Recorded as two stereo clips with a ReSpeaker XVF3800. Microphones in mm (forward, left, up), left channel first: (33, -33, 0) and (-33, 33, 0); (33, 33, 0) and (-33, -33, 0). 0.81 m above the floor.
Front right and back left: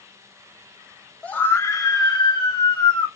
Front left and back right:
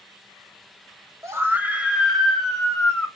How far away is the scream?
About 0.9 m.